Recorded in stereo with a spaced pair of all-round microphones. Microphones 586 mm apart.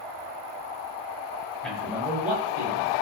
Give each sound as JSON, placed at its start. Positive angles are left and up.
{"t": 1.6, "sound": "a man speaking", "side_deg": 0, "distance_m": 7.0}